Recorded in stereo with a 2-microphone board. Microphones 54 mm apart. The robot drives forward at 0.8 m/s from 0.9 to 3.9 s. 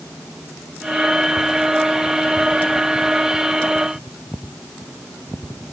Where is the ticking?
No ticking in this recording.